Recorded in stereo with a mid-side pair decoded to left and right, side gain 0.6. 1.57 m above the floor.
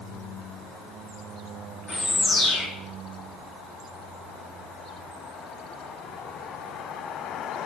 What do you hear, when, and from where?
1.9 s a bird: 35° left, 2.5 m